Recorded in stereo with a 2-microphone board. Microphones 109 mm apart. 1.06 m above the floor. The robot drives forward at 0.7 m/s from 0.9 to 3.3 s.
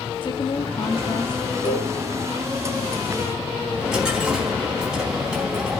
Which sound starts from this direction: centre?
A dropped coin, at 3.7 s.